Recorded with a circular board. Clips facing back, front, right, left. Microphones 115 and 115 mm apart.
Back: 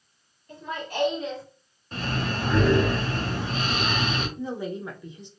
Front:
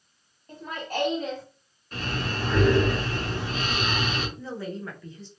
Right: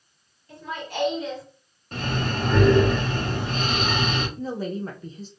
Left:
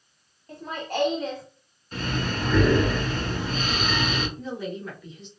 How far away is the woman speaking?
About 0.7 m.